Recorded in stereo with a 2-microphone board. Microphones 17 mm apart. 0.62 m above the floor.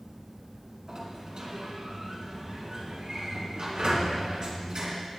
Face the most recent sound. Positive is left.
turn(degrees=-65)  # may be behind; listen again after turning